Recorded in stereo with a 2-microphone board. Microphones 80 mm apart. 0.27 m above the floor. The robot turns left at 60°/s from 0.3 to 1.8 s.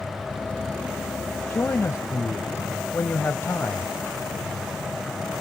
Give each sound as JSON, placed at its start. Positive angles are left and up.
{"t": 1.5, "sound": "a man speaking", "side_deg": 30, "distance_m": 1.2}